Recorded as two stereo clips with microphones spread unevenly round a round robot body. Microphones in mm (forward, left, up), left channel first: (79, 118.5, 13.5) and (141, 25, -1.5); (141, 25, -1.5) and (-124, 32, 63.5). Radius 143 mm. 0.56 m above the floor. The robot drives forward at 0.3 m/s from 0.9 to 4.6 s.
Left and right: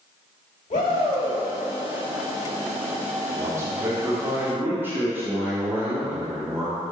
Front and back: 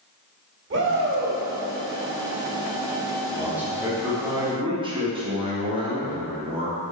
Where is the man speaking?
75° right, 1.5 m; by 6.8 s 105° right, 1.5 m.